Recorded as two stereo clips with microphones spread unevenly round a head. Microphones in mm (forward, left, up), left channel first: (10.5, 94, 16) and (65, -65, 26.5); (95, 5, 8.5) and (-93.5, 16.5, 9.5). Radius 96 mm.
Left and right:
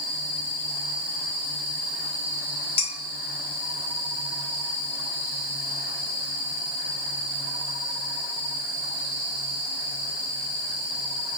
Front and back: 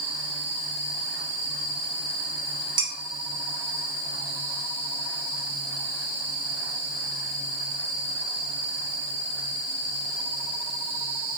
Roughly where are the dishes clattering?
Left.